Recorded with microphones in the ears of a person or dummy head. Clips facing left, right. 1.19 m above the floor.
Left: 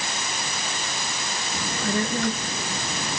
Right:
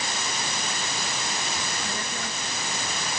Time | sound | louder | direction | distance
1.5 | a child speaking | left 7 dB | 60° left (ahead or behind) | ?